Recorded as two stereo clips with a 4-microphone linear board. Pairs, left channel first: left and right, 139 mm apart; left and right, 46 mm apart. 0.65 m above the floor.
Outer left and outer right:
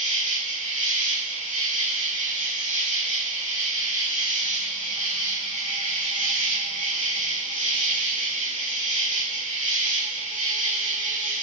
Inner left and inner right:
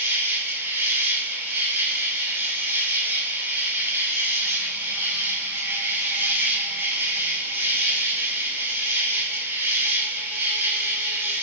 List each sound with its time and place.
0.0 s an insect: 65° right (ahead or behind), 4.5 m